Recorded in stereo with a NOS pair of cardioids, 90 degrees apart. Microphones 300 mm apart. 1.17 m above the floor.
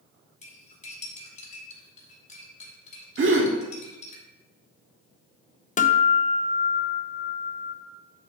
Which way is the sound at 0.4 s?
25° left.